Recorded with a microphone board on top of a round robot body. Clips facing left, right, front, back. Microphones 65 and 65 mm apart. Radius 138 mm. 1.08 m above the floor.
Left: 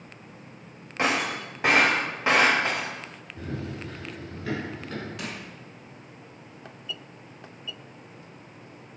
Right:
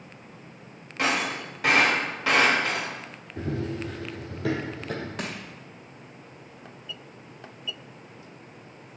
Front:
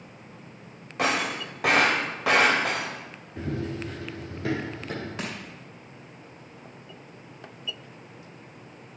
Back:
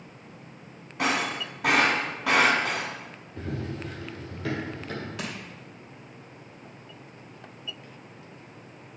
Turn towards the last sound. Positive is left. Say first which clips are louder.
# right 2 dB, front 1 dB
turn(degrees=-55)